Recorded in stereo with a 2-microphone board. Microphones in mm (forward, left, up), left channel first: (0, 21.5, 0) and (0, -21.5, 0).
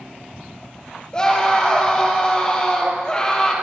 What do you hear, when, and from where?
1.1 s a scream: 25° left (ahead or behind), 4 m